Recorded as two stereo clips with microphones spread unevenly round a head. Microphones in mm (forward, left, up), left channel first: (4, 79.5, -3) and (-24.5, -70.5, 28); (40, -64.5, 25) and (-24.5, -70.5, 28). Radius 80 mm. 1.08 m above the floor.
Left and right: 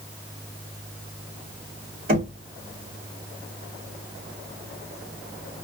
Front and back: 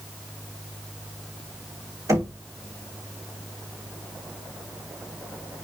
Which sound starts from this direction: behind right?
Knocking, at 2.1 s.